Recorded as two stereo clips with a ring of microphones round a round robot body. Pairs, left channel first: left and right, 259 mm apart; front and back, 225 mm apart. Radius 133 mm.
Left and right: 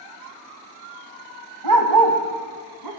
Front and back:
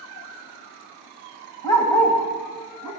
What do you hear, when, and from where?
1.6 s a dog barking: 80° right, 1.7 m; by 2.9 s 85° right, 3 m